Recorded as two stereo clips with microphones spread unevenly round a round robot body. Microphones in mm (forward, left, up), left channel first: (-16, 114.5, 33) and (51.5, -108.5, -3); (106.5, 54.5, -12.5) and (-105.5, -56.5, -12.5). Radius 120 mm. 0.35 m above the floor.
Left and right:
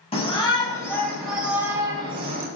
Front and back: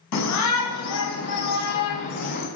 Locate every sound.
0.1 s a shout: 40° left, 3 m; by 2.5 s 15° right, 2.5 m